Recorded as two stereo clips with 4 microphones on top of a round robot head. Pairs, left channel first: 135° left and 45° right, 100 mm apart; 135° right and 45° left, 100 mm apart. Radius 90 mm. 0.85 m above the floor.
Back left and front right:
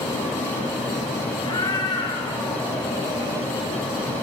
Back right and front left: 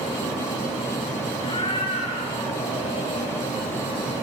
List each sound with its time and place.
1.4 s a cat meowing: 175° right, 8 m; by 3.4 s 160° right, 7 m